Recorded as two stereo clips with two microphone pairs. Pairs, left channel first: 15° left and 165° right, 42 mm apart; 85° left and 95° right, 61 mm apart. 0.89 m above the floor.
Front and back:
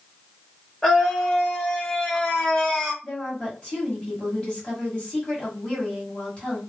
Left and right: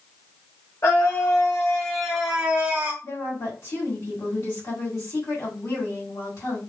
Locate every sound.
0.8 s a scream: 95° left, 1.4 m; by 2.9 s 55° right, 1.3 m
3.0 s a woman speaking: 70° left, 1.9 m